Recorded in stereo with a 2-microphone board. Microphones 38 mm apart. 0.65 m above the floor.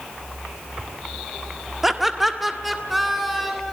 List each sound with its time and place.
1.8 s laughter: 5° right (ahead or behind), 1.4 m; by 3.7 s centre (ahead or behind), 4 m